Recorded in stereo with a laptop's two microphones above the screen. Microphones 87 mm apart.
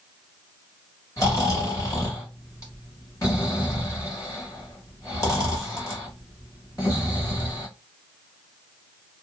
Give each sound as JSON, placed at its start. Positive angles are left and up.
{"t": 1.2, "sound": "snoring", "side_deg": 35, "distance_m": 1.5}